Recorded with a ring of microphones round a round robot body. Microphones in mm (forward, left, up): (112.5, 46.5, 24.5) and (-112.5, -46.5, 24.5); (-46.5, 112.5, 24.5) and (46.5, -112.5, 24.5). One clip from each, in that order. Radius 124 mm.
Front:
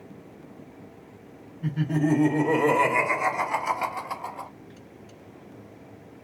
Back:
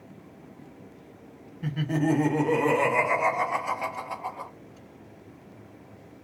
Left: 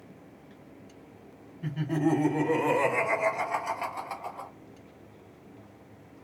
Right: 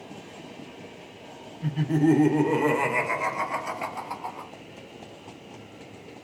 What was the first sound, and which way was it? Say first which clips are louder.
Laughter: even, right 5 dB; 135° right.